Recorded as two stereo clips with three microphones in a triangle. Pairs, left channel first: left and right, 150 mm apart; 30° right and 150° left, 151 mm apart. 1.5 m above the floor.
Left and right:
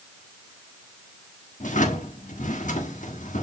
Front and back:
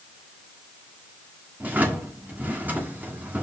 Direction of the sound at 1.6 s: 75° left.